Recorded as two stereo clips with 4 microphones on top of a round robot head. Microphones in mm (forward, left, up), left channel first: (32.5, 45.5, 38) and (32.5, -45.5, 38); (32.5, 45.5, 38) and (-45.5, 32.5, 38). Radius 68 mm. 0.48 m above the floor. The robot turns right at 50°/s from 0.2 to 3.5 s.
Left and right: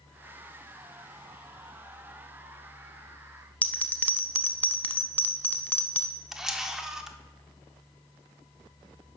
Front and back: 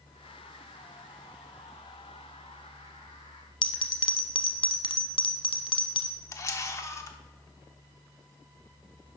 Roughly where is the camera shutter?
Ahead.